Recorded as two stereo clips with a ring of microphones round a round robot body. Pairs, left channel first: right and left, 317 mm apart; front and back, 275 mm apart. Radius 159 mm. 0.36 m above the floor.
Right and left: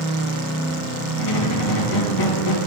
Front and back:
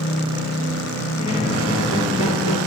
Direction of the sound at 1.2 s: 105° right.